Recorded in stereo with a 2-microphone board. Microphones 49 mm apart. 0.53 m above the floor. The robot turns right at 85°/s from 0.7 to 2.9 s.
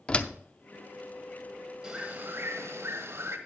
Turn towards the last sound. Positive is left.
turn(degrees=-75)